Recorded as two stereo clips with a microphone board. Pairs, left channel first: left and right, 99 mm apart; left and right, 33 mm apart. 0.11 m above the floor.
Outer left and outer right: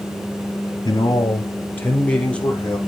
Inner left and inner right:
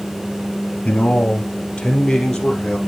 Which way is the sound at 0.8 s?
40° left (ahead or behind).